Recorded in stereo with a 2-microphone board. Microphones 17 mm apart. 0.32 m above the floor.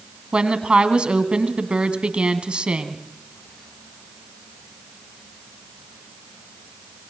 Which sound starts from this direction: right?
A woman speaking, at 0.3 s.